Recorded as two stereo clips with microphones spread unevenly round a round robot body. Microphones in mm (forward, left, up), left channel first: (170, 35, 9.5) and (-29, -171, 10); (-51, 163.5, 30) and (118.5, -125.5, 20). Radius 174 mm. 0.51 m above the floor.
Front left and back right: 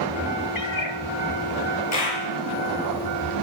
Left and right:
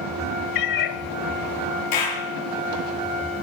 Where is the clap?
95° left, 7 m.